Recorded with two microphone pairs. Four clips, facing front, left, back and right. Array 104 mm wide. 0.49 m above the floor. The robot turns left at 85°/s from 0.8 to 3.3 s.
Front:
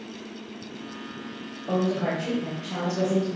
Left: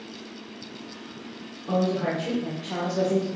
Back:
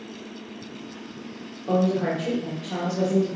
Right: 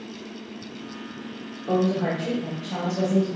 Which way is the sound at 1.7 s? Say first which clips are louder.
Right 2 dB, back 3 dB; 150° right.